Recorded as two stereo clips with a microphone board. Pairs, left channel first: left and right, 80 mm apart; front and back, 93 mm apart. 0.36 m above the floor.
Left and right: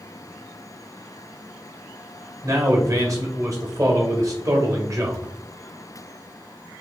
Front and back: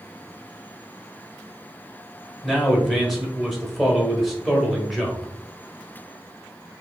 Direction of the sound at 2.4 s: 90° right.